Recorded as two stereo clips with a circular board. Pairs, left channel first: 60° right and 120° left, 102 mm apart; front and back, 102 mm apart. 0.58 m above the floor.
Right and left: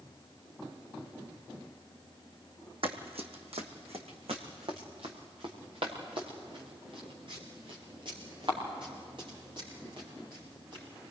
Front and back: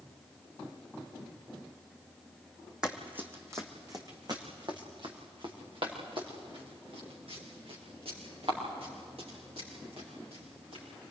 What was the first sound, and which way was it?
Running footsteps, 100° left.